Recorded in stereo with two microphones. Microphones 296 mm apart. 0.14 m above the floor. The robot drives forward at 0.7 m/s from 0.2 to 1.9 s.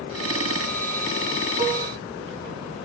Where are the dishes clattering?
20° right (ahead or behind), 0.9 m.